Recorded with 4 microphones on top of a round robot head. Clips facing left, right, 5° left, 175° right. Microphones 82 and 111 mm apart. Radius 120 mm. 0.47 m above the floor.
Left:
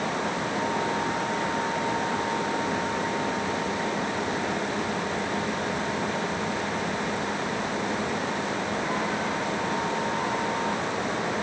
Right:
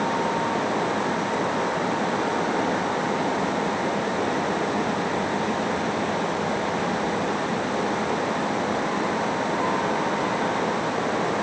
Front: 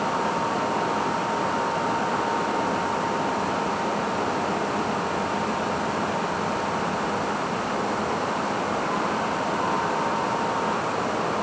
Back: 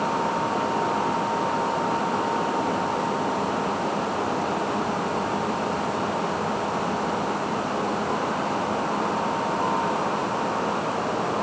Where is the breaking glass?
I don't hear breaking glass.